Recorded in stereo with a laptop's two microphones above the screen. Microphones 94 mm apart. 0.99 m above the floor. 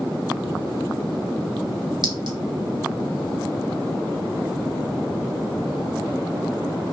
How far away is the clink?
About 3 m.